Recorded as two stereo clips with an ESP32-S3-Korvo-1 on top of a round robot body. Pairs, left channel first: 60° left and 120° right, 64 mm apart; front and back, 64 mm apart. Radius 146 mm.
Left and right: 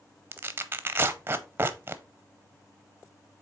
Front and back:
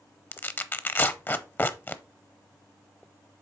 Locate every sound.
0.3 s tearing paper: 60° right, 0.7 m